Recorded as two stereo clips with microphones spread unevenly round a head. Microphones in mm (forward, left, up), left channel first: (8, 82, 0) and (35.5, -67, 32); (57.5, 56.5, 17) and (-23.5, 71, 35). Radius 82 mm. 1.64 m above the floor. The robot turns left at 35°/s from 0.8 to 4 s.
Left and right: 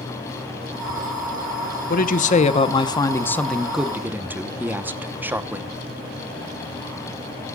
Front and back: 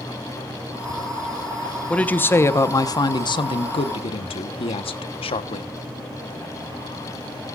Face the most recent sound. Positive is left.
turn(degrees=-5)